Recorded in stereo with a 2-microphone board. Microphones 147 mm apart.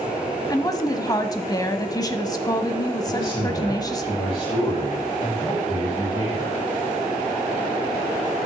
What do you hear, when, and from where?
0.5 s a woman speaking: 25° left (ahead or behind), 1.0 m
3.0 s a man speaking: 40° left (ahead or behind), 7 m